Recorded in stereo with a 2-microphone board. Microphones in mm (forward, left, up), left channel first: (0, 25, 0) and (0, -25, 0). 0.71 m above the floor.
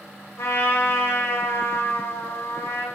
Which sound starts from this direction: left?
A trumpet, at 0.4 s.